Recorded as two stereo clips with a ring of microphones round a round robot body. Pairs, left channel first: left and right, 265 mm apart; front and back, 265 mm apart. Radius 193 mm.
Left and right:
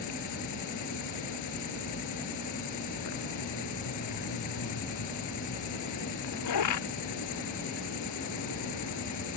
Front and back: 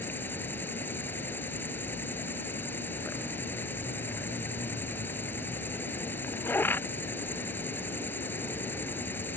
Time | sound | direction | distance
0.0 | an insect | 85° left | ?